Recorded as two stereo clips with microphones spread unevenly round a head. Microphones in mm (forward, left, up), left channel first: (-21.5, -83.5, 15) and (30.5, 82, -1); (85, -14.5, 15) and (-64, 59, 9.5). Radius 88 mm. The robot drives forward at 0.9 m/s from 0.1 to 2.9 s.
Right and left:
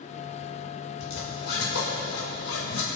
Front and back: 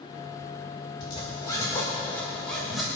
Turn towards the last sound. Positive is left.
turn(degrees=-120)